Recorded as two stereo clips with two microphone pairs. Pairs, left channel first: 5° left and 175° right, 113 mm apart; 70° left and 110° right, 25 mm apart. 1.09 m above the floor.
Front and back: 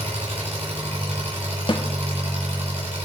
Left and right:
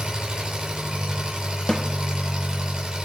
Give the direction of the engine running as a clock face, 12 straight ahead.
6 o'clock.